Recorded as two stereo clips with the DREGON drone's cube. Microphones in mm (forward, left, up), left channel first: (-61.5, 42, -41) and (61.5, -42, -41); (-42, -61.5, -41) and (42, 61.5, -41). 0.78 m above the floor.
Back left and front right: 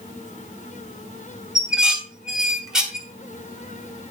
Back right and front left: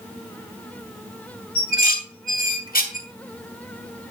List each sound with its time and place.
1.6 s dishes clattering: 120° right, 1.4 m